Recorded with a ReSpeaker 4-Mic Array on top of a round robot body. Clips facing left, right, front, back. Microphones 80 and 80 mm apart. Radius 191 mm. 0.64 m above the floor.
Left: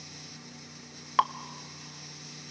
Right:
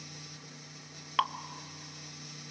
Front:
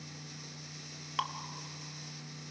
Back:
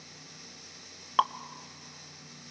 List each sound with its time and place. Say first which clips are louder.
1.2 s dripping: left 5 dB, back 10 dB; 155° left, 0.8 m